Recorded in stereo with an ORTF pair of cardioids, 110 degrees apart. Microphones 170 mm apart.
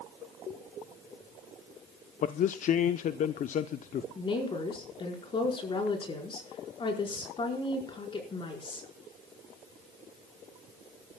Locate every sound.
2.2 s a man speaking: 50° left, 0.7 m
4.2 s a woman speaking: 30° left, 4.5 m